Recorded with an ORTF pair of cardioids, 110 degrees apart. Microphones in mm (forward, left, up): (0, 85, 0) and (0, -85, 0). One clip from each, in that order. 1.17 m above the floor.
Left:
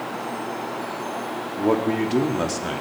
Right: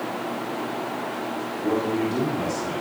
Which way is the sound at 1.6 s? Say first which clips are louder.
Left 3 dB; 60° left.